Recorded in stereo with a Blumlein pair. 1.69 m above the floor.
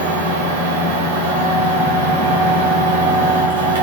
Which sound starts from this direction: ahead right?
A machine running, at 0.0 s.